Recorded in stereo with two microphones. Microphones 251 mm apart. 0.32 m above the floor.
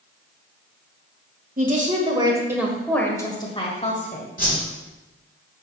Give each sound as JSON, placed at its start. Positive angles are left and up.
{"t": 1.6, "sound": "a woman speaking", "side_deg": -35, "distance_m": 1.4}
{"t": 4.4, "sound": "a whoosh", "side_deg": 35, "distance_m": 3.5}